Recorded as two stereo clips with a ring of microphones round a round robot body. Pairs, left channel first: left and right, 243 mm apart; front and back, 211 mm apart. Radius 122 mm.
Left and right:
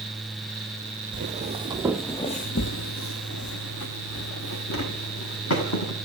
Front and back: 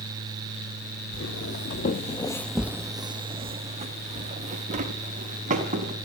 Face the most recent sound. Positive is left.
turn(degrees=125)